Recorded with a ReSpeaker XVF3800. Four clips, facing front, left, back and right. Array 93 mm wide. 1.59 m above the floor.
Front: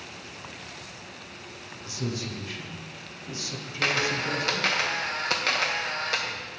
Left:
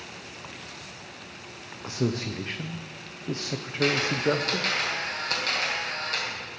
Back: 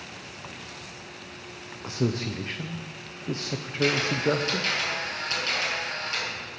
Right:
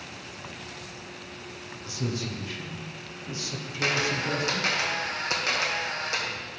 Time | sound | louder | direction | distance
1.8 | a man speaking | left 4 dB, back 6 dB | 135° left | 0.5 m
3.8 | a camera shutter | left 3 dB, back 2 dB | 15° right | 1.2 m